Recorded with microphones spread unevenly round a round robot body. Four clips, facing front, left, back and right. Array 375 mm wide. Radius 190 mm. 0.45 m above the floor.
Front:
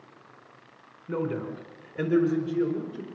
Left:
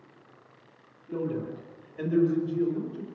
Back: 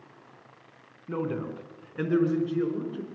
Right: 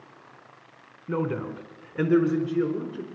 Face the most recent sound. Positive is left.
turn(degrees=-95)